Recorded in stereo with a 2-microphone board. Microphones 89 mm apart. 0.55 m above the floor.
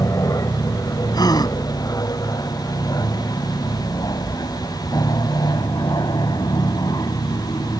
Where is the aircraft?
40° left (ahead or behind); by 7.8 s 50° left (ahead or behind).